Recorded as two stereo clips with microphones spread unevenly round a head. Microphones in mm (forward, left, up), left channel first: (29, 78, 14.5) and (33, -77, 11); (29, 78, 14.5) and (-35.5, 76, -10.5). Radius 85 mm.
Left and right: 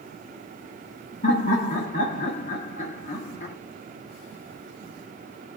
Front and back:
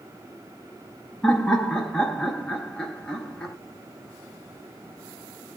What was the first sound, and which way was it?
Laughter, 105° left.